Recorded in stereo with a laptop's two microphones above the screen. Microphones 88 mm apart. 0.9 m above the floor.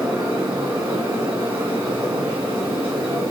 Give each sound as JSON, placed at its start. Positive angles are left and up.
{"t": 0.0, "sound": "a fan", "side_deg": -85, "distance_m": 1.8}